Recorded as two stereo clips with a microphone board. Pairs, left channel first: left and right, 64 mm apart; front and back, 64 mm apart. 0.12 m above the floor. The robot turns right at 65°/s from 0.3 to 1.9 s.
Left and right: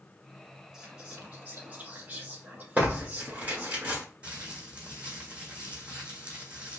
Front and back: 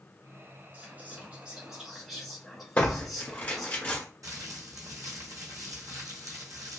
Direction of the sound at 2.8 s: 45° right.